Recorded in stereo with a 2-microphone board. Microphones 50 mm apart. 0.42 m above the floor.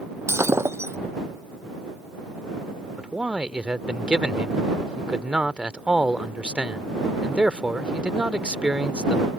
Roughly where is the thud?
I don't hear a thud.